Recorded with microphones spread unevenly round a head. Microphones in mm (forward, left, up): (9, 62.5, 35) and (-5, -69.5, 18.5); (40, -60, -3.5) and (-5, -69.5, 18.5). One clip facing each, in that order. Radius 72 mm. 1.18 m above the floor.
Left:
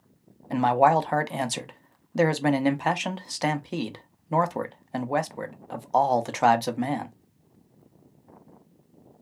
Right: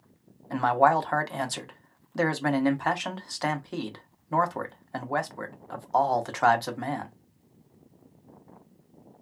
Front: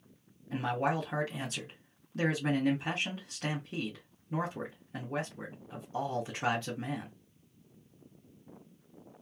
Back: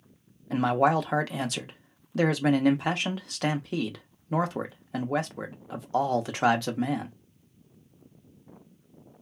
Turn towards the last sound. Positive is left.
turn(degrees=155)